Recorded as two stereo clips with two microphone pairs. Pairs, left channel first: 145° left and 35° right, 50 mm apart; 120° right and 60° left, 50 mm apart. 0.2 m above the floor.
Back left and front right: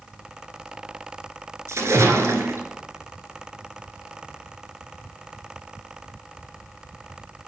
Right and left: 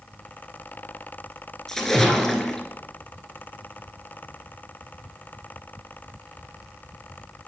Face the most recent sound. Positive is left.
turn(degrees=-40)